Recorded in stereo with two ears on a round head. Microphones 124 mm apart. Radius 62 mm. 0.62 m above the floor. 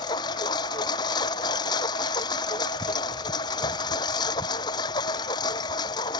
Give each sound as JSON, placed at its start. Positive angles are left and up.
{"t": 0.0, "sound": "a lawn mower", "side_deg": 30}